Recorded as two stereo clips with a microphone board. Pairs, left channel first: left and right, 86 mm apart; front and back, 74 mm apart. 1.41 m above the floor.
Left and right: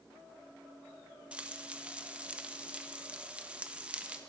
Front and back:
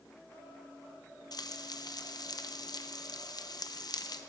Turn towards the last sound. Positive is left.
turn(degrees=-15)